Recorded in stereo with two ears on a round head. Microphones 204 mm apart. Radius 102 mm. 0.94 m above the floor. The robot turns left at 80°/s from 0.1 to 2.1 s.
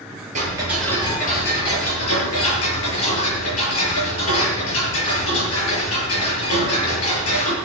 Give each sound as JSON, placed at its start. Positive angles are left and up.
{"t": 0.3, "sound": "ticking", "azimuth_deg": -145, "distance_m": 6.5}